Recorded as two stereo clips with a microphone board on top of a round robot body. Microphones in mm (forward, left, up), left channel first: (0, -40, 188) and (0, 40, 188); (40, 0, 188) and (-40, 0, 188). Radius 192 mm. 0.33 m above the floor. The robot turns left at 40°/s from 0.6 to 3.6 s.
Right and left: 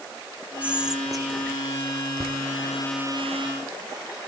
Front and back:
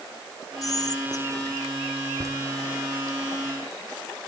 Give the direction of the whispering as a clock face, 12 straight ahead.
11 o'clock.